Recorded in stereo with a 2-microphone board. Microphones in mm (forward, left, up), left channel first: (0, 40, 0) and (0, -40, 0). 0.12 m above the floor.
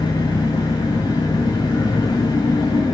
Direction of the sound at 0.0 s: 75° left (ahead or behind).